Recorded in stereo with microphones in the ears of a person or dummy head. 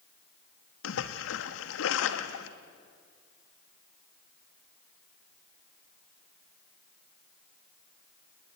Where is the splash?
65° left (ahead or behind), 1.5 m.